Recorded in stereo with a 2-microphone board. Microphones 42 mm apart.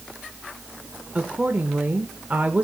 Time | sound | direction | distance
1.1 | a woman speaking | 35° right (ahead or behind) | 1.5 m